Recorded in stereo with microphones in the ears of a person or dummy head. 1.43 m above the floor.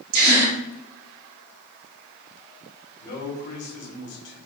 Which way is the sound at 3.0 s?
55° left (ahead or behind).